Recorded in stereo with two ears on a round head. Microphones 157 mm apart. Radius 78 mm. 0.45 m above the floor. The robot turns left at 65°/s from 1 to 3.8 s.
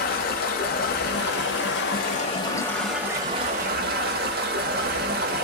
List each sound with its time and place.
0.0 s running water: 120° left, 1.0 m; by 5.5 s 60° right, 1.0 m